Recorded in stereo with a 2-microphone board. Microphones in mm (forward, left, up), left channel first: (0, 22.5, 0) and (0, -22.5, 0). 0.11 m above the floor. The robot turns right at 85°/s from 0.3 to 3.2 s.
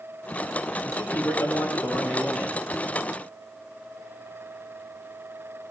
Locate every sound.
0.8 s a man speaking: 15° left, 8.5 m; by 2.6 s 160° left, 8.5 m